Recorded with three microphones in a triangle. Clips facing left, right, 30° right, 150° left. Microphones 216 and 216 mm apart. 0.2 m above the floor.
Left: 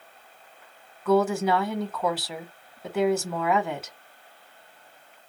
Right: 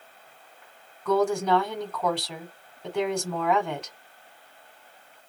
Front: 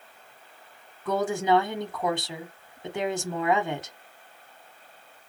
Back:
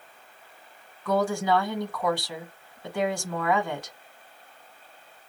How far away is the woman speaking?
About 1.0 m.